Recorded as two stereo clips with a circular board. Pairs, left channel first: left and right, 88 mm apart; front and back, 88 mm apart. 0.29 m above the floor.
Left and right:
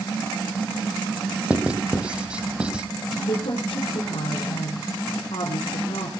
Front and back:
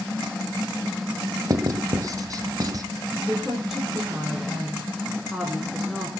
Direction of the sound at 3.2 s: 95° left.